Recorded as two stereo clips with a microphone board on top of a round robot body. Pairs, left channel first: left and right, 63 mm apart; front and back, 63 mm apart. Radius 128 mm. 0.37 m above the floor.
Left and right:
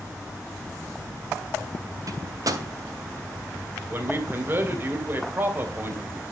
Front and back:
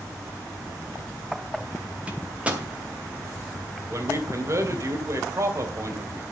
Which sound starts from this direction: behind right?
A man speaking, at 3.9 s.